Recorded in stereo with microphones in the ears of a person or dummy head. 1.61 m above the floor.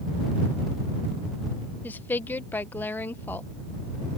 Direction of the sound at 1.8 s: 15° left (ahead or behind).